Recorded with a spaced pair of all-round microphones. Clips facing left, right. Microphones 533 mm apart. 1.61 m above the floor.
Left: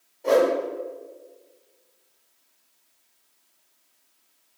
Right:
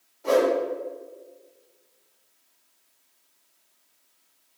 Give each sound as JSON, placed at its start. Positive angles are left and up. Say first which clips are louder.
{"t": 0.2, "sound": "a whoosh", "louder": "left 1 dB", "side_deg": -30, "distance_m": 1.7}